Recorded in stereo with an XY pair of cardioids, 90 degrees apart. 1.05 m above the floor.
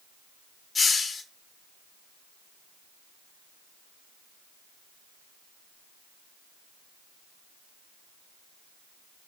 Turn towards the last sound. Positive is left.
turn(degrees=45)